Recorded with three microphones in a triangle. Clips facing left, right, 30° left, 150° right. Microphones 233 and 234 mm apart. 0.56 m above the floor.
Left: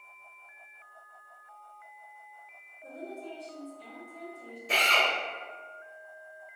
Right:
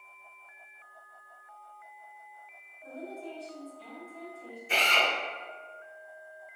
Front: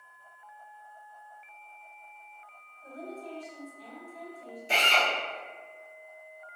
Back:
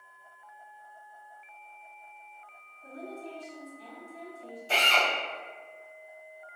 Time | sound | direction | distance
2.8 | a woman speaking | 160° left | 1.2 m
4.7 | a drill | 100° left | 1.0 m